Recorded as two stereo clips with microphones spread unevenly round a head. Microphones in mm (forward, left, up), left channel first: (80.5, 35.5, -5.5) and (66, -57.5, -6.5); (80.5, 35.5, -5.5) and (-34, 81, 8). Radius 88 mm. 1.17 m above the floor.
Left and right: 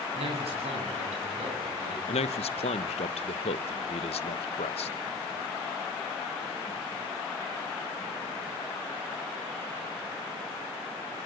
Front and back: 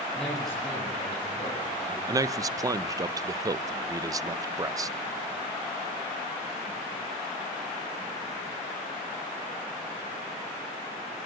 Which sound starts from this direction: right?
A man speaking, at 0.1 s.